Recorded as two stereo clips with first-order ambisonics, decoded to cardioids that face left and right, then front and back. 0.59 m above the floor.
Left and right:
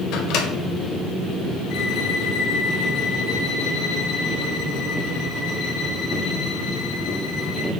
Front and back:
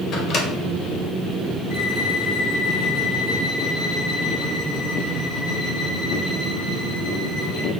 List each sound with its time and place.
0.1 s a microwave: 55° left, 1.5 m
1.7 s a violin: 50° left, 2.0 m